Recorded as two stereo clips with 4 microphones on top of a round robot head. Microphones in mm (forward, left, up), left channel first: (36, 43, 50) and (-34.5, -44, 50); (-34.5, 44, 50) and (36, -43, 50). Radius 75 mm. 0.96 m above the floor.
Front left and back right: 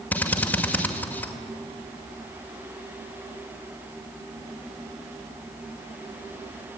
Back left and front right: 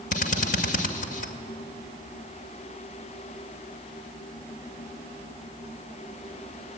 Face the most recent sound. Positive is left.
turn(degrees=125)